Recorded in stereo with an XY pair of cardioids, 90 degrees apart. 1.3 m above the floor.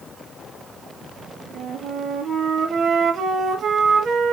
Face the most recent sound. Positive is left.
turn(degrees=-65)